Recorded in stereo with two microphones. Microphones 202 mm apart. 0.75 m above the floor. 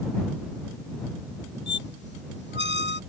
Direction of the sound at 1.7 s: 60° left (ahead or behind).